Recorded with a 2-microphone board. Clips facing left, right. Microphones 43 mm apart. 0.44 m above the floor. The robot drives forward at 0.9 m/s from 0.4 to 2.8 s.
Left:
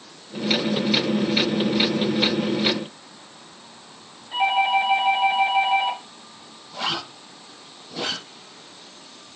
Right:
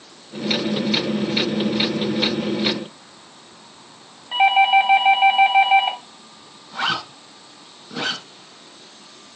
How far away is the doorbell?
About 2.5 m.